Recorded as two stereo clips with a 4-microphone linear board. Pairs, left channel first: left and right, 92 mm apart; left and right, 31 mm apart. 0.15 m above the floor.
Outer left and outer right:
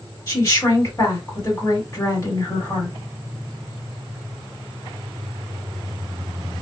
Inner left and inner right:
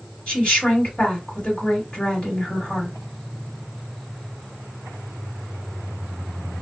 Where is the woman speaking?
40° left (ahead or behind), 2.5 m.